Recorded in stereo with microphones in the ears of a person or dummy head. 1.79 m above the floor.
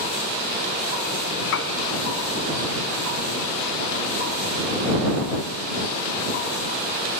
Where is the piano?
75° left (ahead or behind).